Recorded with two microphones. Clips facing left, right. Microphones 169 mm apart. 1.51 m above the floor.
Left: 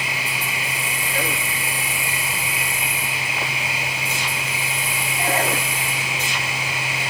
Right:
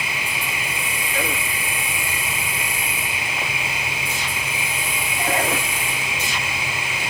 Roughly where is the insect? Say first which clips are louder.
Even; centre.